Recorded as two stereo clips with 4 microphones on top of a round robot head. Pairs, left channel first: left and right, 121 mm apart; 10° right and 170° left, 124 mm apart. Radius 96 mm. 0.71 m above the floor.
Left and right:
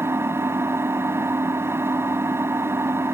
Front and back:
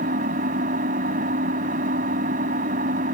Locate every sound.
0.0 s an engine running: 160° right